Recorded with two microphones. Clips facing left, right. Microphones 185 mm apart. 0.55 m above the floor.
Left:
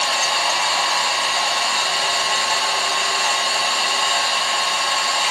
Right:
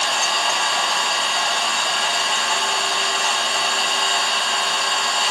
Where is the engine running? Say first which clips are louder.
Left 1 dB; 5° left (ahead or behind), 1.9 m.